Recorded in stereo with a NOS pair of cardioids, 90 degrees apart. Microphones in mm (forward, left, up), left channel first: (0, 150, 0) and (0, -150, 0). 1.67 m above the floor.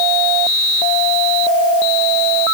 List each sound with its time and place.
Only background noise.